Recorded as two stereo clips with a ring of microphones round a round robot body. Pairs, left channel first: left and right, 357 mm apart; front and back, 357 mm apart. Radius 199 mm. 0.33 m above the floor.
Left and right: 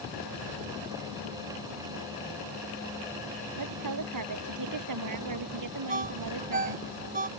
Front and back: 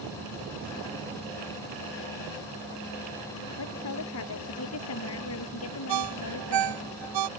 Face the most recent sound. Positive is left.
turn(degrees=-160)